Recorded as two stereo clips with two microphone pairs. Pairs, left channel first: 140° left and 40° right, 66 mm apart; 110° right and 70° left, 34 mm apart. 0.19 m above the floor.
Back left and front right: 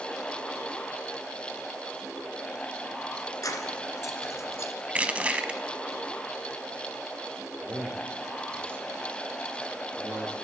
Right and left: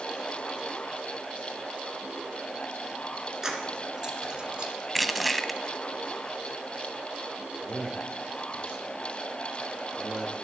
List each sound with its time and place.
3.4 s keys jangling: 140° left, 1.5 m; by 4.7 s 120° left, 1.1 m
4.9 s crushing: 15° right, 0.5 m
7.6 s a man speaking: 5° left, 4 m